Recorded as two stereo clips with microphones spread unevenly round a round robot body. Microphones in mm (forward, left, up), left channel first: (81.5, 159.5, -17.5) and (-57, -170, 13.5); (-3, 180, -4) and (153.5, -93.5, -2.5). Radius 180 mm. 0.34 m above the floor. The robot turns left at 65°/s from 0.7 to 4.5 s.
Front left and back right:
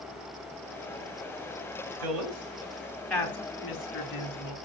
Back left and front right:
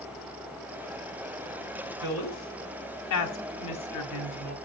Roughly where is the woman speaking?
Behind right.